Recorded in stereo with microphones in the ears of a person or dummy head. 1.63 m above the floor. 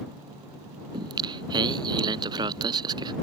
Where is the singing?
25° right (ahead or behind).